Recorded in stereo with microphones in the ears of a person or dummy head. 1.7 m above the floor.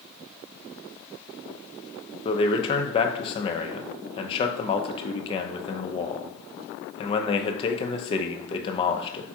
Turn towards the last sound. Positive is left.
turn(degrees=30)  # may be behind; listen again after turning